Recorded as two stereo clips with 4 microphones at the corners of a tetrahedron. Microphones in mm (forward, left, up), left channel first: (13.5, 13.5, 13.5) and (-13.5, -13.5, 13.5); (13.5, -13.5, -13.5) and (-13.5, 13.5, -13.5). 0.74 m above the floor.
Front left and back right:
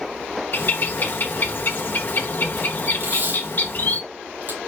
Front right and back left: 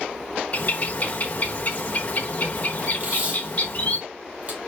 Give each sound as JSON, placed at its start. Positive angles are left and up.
{"t": 0.5, "sound": "a bird", "azimuth_deg": 5, "distance_m": 0.9}
{"t": 3.0, "sound": "tape being pulled", "azimuth_deg": -170, "distance_m": 3.5}